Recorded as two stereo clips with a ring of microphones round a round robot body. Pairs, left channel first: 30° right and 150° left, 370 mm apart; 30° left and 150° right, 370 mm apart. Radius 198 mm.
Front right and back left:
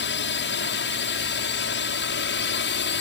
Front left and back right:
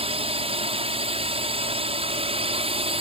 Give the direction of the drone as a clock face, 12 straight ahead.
3 o'clock.